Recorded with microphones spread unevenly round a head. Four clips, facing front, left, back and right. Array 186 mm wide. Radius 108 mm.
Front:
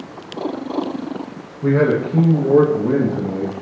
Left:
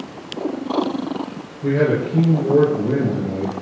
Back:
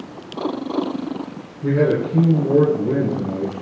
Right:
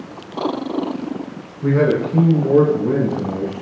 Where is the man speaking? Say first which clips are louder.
Right 2 dB, front 2 dB; 15° right, 1.5 m; by 3.6 s 5° right, 2.5 m.